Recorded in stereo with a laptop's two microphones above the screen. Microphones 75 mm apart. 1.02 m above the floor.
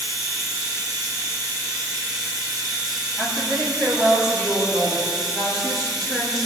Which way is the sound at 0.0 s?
60° right (ahead or behind).